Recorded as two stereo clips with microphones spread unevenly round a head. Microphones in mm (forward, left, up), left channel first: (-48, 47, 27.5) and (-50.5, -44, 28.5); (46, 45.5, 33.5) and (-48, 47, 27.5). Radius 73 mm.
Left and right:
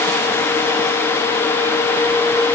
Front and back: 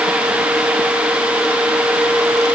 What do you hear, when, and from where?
Only background noise.